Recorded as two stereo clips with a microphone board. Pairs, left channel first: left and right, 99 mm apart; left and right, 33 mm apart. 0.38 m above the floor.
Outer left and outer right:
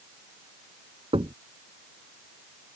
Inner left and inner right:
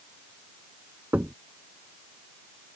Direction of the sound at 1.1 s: 70° right (ahead or behind).